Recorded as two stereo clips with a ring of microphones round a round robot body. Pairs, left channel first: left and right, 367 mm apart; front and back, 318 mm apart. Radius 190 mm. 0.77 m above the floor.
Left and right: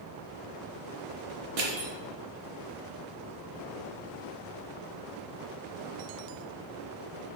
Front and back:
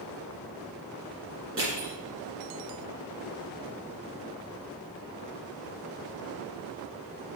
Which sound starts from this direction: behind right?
Crushing, at 1.6 s.